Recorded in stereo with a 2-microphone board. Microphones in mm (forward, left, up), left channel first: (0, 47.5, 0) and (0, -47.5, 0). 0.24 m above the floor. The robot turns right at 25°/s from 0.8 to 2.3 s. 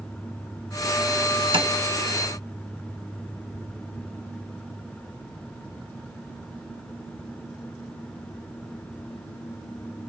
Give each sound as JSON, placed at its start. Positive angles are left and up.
{"t": 1.5, "sound": "tapping", "side_deg": -60, "distance_m": 0.6}